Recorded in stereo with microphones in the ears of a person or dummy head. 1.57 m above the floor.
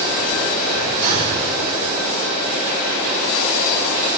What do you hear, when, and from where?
1.0 s breathing: 50° right (ahead or behind), 3.5 m